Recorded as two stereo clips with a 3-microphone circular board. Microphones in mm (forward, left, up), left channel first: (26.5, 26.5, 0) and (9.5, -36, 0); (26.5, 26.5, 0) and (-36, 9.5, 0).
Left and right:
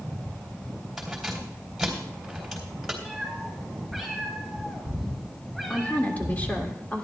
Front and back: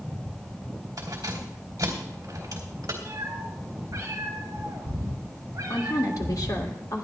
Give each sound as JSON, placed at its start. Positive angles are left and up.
{"t": 1.0, "sound": "keys jangling", "azimuth_deg": 170, "distance_m": 3.0}
{"t": 3.0, "sound": "a cat meowing", "azimuth_deg": 160, "distance_m": 4.0}
{"t": 5.7, "sound": "a woman speaking", "azimuth_deg": 10, "distance_m": 1.9}